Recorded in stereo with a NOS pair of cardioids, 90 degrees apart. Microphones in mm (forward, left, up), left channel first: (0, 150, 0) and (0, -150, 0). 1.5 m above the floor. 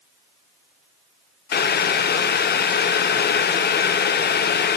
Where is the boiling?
35° left, 0.5 m.